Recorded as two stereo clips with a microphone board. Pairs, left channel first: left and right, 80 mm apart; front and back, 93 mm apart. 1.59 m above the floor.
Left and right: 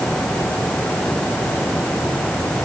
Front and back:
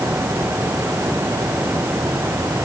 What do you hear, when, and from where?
Only background noise.